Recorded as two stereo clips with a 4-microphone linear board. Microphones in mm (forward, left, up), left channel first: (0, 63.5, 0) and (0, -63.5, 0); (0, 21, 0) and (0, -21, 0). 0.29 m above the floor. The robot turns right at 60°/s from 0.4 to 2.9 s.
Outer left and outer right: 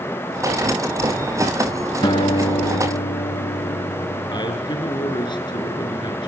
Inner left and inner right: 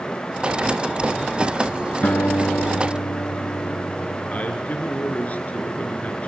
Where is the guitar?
35° left, 2 m; by 4.4 s 90° left, 2 m.